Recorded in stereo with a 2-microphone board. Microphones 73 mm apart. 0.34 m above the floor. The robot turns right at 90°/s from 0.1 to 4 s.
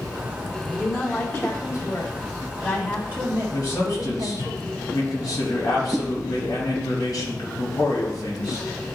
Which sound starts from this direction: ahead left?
A man speaking, at 3.5 s.